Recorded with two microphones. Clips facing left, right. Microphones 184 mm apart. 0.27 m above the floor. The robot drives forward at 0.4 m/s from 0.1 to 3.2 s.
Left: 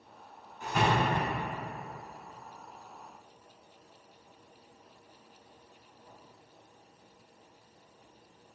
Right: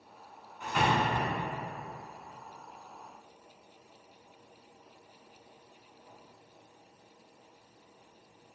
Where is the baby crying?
I don't hear a baby crying.